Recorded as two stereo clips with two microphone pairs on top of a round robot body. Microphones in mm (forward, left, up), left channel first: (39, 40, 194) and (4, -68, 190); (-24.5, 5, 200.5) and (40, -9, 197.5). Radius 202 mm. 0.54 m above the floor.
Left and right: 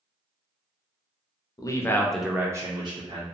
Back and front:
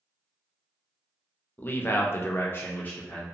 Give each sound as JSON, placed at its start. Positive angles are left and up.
{"t": 1.6, "sound": "a man speaking", "azimuth_deg": 115, "distance_m": 0.7}